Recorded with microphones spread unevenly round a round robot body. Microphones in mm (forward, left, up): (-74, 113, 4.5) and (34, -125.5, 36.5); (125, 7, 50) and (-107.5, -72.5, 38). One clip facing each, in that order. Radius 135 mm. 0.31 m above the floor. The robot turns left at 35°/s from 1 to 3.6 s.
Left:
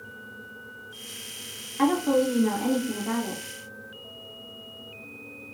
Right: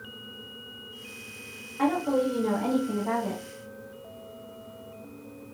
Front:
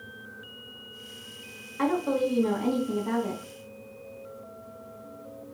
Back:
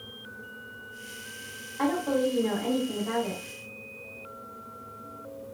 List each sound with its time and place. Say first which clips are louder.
1.8 s a woman speaking: left 3 dB, even; 80° left, 1.7 m; by 3.4 s 20° left, 1.7 m